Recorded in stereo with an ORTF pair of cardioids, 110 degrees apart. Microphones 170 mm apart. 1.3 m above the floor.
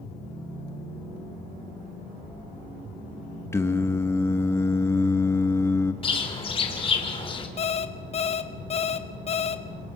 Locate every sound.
3.5 s singing: 15° left, 1.3 m
6.0 s a bird: 30° left, 2.5 m
7.6 s an alarm clock: 40° left, 1.3 m